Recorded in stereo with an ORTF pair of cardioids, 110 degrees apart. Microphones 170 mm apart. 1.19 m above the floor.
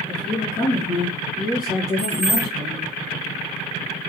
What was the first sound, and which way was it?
A woman speaking, 25° left.